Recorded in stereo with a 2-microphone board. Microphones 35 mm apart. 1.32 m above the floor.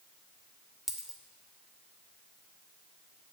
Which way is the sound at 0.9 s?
10° right (ahead or behind).